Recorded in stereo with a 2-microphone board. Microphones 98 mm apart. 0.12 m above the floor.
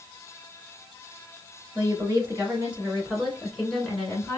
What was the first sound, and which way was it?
A woman speaking, 35° right (ahead or behind).